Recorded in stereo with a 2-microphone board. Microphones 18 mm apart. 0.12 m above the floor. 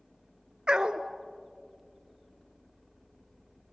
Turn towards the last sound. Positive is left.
turn(degrees=-50)  # may be behind; listen again after turning